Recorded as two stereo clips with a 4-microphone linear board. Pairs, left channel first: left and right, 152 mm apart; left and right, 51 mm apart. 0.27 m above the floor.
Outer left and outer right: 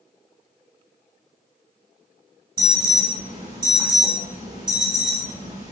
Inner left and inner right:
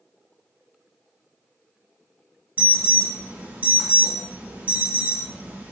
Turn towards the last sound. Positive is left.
turn(degrees=-35)  # may be behind; listen again after turning